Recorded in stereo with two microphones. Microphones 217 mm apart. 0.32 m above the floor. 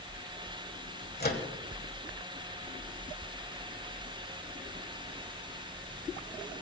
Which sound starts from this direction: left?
A microwave, at 1.2 s.